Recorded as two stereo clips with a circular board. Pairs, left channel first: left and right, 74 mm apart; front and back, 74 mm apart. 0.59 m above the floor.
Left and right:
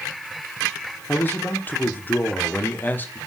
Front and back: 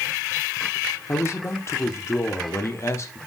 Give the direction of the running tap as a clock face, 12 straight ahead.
No running tap in this recording.